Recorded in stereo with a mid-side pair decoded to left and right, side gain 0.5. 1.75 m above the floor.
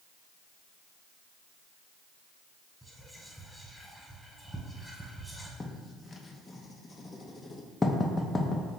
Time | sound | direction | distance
2.8 | whispering | 5° left | 1.5 m
5.6 | writing | 25° left | 0.7 m